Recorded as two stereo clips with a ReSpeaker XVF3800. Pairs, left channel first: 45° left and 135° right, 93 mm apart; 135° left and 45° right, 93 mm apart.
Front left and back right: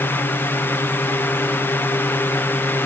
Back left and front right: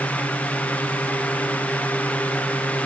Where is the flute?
I don't hear a flute.